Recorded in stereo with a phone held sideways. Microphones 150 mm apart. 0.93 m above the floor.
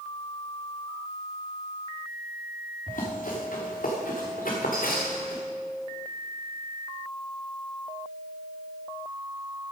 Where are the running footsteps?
60° left (ahead or behind), 4 m; by 5.4 s 70° left (ahead or behind), 3 m.